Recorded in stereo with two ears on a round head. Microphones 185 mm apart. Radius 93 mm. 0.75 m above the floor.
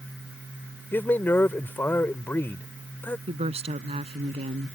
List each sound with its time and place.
0.9 s a man speaking: 10° left (ahead or behind)
3.3 s a woman speaking: 30° right (ahead or behind)